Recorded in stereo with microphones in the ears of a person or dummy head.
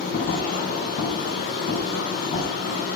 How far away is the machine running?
About 5 m.